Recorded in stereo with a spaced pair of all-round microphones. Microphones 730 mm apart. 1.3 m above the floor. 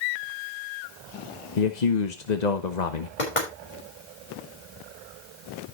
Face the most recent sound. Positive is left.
turn(degrees=75)  # may be behind; listen again after turning